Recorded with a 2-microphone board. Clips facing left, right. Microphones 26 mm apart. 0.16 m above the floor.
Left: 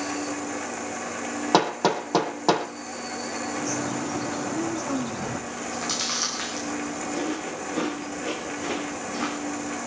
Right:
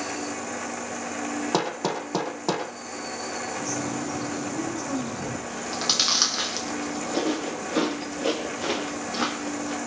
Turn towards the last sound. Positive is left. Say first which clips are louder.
# right 3 dB
turn(degrees=-55)  # may be behind; listen again after turning